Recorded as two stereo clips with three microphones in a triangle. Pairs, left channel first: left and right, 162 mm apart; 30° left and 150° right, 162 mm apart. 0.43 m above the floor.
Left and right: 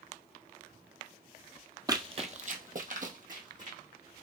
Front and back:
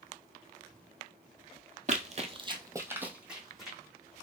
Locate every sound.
1.9 s running footsteps: 150° right, 0.6 m; by 3.8 s 60° right, 1.3 m